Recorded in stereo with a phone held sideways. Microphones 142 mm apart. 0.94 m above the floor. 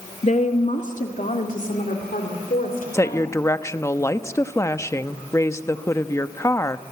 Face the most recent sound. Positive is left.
turn(degrees=20)  # may be behind; listen again after turning